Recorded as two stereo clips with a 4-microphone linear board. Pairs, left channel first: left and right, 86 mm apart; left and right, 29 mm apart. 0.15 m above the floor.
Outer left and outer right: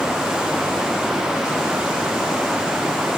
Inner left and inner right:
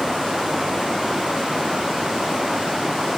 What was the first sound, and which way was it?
Only background noise.